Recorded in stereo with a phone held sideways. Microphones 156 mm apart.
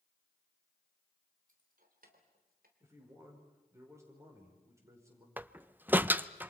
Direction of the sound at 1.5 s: 60° right (ahead or behind).